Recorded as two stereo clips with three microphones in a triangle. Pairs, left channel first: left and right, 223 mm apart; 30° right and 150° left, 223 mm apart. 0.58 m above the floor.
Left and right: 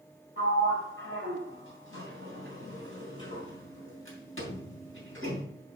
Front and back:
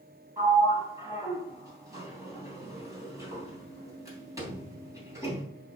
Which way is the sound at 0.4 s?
75° left.